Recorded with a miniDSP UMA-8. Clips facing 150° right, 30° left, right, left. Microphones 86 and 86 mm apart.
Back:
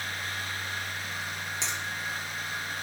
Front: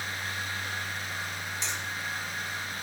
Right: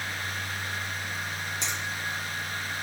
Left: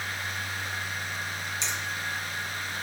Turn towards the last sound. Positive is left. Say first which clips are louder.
# back 1 dB, left 1 dB
turn(degrees=-135)